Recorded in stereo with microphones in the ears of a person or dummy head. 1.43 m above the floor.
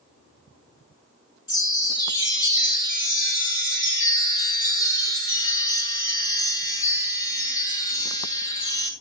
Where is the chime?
25° left (ahead or behind), 5 m.